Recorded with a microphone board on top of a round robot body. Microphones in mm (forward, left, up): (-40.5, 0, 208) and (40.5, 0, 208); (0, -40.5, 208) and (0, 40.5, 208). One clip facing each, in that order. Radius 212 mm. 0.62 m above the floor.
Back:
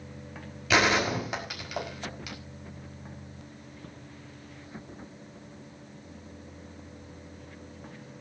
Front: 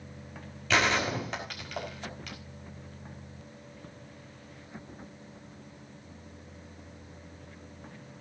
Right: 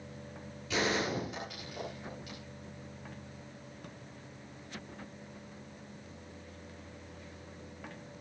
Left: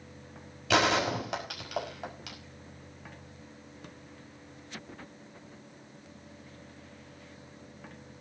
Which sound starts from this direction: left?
A gunshot, at 0.7 s.